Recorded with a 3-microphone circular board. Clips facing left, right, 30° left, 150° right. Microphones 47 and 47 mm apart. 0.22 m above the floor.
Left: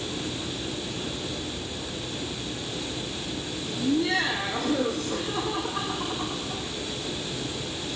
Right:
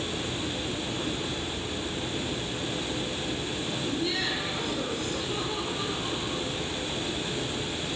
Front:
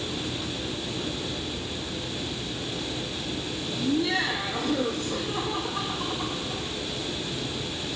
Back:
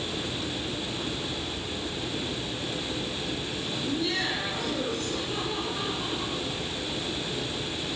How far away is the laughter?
About 9.5 m.